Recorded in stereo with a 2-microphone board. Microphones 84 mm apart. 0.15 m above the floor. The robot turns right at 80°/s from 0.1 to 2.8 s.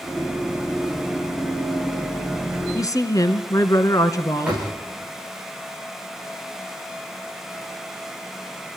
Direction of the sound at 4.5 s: 15° right (ahead or behind).